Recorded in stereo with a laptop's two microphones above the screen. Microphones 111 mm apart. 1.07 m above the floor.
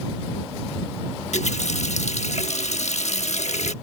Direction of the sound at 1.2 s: 75° left (ahead or behind).